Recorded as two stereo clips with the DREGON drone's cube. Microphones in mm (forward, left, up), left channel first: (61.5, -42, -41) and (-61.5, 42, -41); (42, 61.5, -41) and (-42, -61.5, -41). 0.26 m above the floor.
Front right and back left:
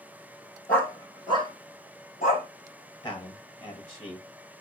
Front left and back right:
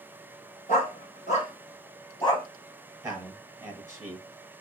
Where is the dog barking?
45° left, 1.0 m; by 2.5 s 10° right, 1.5 m.